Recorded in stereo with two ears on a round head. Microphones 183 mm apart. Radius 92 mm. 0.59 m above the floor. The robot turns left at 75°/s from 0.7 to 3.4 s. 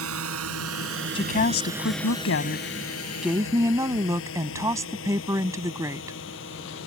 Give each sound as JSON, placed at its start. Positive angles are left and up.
{"t": 0.0, "sound": "a drone", "side_deg": -75}
{"t": 1.1, "sound": "a woman speaking", "azimuth_deg": 155}